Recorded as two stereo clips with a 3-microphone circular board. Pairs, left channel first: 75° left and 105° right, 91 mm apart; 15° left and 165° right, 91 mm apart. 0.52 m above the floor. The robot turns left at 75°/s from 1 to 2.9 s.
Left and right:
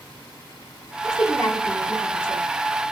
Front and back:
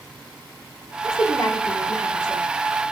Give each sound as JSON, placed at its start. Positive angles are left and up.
{"t": 1.0, "sound": "a woman speaking", "azimuth_deg": 50, "distance_m": 1.2}